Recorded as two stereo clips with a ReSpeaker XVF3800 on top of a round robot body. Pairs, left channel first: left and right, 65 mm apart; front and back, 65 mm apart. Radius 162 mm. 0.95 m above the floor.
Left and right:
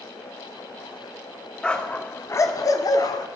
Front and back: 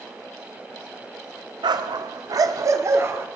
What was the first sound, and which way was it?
A dog barking, 170° left.